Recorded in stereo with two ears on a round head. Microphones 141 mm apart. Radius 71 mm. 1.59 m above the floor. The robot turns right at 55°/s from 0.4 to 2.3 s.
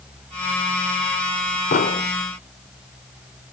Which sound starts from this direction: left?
An explosion, at 1.7 s.